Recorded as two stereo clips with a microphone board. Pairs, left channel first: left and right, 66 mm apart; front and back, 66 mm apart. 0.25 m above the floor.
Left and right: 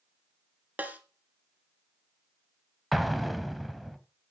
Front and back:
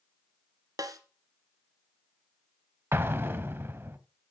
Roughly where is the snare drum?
Behind right.